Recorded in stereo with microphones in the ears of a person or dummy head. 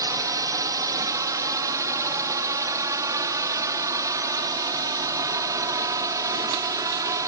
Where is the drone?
10° right (ahead or behind).